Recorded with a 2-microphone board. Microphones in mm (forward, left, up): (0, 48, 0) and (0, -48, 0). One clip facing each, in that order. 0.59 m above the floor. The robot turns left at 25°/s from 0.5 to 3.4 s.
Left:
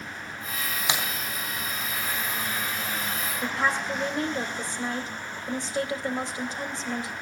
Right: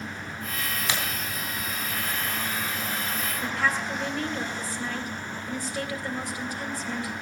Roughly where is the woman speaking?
Left.